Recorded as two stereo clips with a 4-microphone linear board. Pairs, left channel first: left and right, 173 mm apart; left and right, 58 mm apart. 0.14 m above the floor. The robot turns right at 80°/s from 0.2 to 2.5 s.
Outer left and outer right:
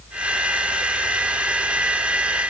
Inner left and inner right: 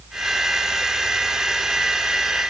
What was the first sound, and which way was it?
Only background noise.